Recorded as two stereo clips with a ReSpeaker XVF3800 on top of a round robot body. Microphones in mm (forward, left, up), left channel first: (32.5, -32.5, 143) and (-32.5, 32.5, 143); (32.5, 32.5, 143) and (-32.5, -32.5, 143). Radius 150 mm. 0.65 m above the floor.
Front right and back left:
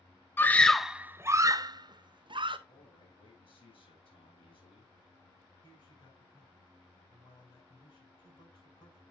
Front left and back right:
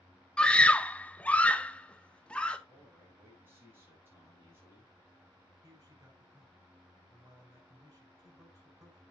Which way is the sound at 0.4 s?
20° right.